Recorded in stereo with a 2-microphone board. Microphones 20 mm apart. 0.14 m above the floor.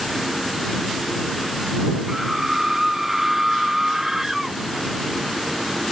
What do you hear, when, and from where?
2.1 s a scream: 15° right (ahead or behind); by 4.6 s 20° right (ahead or behind)